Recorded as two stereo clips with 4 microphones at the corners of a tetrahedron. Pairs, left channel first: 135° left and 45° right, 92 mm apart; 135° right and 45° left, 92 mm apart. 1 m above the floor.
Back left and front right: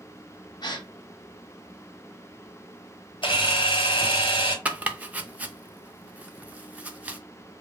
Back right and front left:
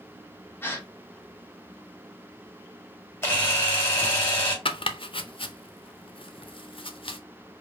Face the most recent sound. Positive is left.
turn(degrees=-120)